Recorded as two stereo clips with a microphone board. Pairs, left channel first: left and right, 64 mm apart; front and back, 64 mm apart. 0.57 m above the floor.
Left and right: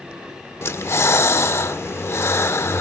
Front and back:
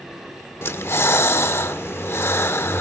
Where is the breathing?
45° left, 0.8 m.